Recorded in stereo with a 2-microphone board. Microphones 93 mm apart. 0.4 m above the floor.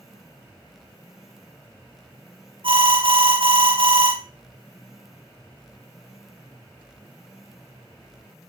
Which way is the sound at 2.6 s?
55° right (ahead or behind).